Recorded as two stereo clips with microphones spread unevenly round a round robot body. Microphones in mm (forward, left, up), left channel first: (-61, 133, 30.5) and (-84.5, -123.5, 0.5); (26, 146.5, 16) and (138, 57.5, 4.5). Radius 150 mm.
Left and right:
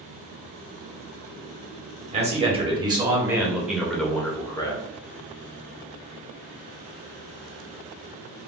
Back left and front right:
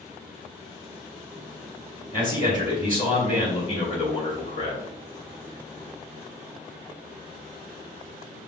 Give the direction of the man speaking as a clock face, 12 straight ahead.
5 o'clock.